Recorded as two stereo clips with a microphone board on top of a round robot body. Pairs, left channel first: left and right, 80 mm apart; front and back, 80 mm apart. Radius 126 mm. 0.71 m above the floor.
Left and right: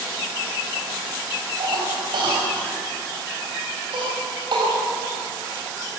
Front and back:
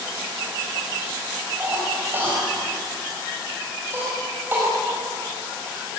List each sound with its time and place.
1.6 s a cough: 115° right, 5 m